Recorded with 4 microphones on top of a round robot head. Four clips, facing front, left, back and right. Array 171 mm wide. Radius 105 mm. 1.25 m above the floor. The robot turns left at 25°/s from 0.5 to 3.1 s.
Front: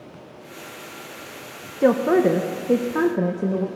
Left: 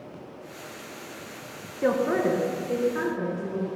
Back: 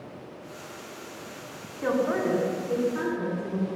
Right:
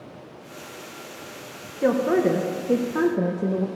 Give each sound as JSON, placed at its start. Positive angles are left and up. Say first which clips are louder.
{"t": 1.8, "sound": "a woman speaking", "louder": "right 3 dB, front 8 dB", "azimuth_deg": 0, "distance_m": 1.1}